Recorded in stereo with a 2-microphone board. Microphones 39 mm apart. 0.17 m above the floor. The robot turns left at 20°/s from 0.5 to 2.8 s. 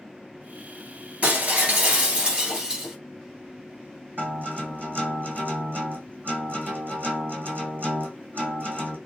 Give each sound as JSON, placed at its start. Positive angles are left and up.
{"t": 1.2, "sound": "breaking glass", "azimuth_deg": -135, "distance_m": 1.7}
{"t": 4.2, "sound": "a guitar", "side_deg": -55, "distance_m": 1.7}